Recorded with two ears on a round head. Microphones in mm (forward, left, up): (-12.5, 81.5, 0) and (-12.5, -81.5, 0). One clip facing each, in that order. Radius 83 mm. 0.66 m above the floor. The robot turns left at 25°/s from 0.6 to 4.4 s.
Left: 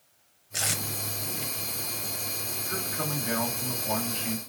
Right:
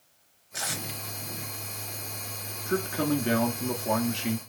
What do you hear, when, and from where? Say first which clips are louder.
0.5 s tape being pulled: left 1 dB; 25° left (ahead or behind), 0.6 m
2.7 s a man speaking: right 9 dB; 45° right, 0.9 m; by 4.4 s 85° right, 0.9 m